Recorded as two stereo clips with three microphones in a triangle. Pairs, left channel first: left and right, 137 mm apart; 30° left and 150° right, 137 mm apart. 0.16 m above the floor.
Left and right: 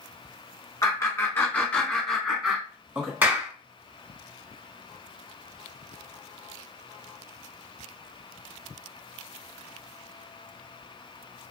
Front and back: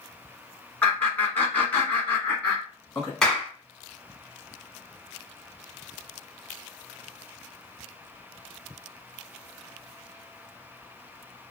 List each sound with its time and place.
0.8 s laughter: 90° left, 1.7 m; by 3.1 s 35° right, 1.7 m
3.2 s a clap: 50° right, 1.1 m